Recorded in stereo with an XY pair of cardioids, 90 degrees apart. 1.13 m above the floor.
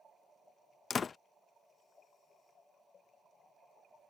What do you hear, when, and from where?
0.9 s a door slam: 45° left